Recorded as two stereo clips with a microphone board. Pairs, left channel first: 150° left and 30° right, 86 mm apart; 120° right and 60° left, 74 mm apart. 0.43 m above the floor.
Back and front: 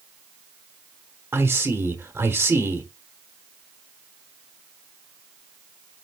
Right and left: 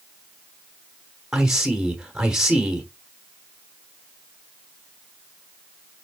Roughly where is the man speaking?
Ahead.